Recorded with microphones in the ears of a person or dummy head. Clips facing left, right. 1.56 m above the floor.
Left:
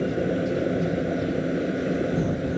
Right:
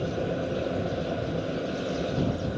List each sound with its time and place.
0.0 s a machine running: 25° left (ahead or behind)